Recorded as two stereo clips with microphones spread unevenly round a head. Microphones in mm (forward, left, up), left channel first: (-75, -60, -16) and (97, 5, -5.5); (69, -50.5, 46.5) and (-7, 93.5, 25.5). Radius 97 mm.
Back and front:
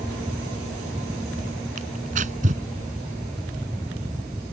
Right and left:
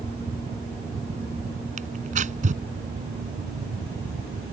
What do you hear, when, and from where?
1.8 s tearing paper: 75° left